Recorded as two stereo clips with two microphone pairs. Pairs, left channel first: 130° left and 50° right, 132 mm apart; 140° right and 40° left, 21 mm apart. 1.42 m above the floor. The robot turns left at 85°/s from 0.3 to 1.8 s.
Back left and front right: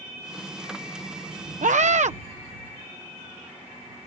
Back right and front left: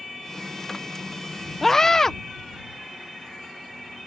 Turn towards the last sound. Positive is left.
turn(degrees=-75)